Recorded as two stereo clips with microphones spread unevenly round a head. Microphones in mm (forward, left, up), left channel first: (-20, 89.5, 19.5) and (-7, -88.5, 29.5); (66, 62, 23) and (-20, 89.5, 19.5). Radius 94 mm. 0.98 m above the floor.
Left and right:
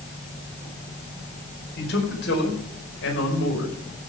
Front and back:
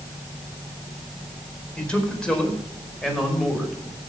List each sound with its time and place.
1.8 s a man speaking: 60° left, 4.5 m; by 3.8 s 70° left, 5.5 m